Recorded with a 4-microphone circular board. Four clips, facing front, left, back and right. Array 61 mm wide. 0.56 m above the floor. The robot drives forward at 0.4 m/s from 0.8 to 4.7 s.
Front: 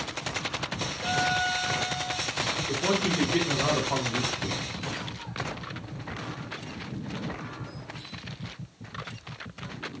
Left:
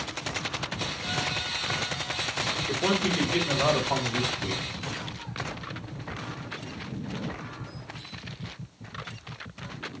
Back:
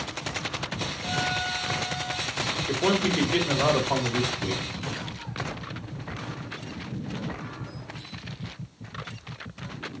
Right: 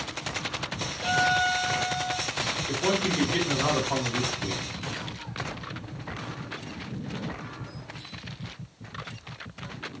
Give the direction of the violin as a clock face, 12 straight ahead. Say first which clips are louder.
Right 11 dB, front 3 dB; 2 o'clock.